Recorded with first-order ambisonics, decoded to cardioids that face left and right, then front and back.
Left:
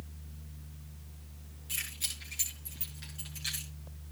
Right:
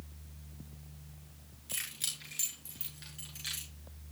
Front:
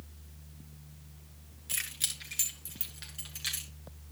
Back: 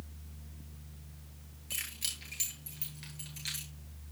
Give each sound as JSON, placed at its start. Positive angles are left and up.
{"t": 1.7, "sound": "keys jangling", "azimuth_deg": -10, "distance_m": 9.5}